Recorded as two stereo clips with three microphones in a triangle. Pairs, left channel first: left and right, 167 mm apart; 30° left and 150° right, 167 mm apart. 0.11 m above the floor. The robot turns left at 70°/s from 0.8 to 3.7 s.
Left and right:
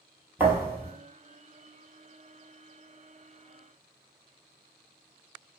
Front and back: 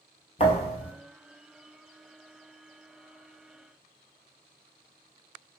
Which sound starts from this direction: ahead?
A thud, at 0.4 s.